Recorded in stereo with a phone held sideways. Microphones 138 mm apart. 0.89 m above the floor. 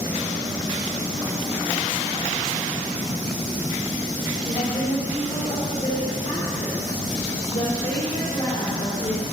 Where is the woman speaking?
45° left (ahead or behind), 3 m.